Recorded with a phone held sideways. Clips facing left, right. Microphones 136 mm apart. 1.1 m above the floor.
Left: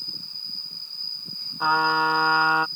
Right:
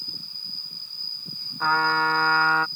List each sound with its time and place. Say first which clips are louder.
0.0 s an insect: even; 15° right (ahead or behind)
1.6 s a trumpet: left 1 dB; 10° left (ahead or behind)